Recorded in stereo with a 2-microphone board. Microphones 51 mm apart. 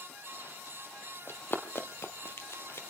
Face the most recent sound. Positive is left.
turn(degrees=50)  # may be behind; listen again after turning